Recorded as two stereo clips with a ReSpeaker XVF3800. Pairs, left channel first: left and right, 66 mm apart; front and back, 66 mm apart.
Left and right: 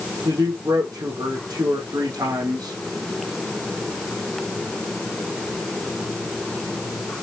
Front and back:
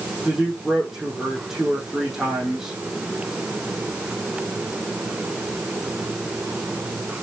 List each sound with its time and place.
0.2 s a man speaking: 95° right, 5 m